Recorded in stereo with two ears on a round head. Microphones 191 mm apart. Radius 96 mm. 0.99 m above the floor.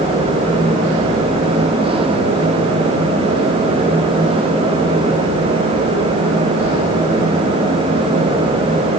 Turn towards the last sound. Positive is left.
No sound to turn to.